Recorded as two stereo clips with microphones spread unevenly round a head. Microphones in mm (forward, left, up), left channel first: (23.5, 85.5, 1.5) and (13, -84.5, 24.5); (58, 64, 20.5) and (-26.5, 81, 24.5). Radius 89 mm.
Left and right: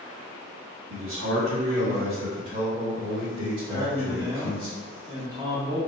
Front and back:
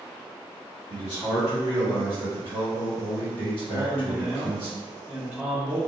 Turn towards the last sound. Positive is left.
turn(degrees=-140)